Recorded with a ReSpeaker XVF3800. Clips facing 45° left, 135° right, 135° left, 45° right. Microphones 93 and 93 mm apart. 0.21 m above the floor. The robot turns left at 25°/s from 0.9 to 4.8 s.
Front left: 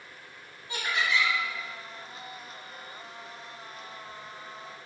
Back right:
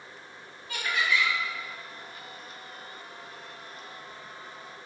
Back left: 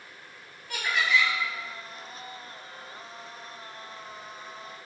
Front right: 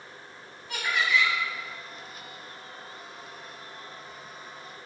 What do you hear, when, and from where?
0.7 s laughter: 40° left, 1.0 m; by 1.3 s 25° left, 1.0 m